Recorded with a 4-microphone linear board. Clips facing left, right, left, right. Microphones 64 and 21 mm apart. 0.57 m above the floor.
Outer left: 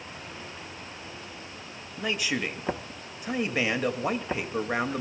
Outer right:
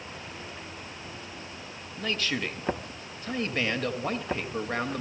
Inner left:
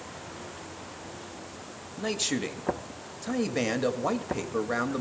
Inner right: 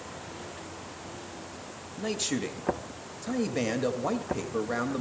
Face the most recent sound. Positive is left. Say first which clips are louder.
# outer left 1 dB, inner left 1 dB
turn(degrees=10)  # may be behind; listen again after turning